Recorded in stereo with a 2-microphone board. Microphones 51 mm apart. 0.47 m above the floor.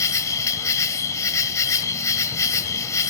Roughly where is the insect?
Left.